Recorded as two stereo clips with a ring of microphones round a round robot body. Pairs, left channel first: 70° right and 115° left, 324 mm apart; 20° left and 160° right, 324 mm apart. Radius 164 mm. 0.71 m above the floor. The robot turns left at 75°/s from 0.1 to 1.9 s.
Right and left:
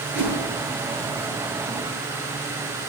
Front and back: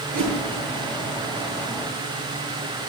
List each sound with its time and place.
0.1 s a whoosh: 170° left, 8 m; by 0.4 s 150° left, 8 m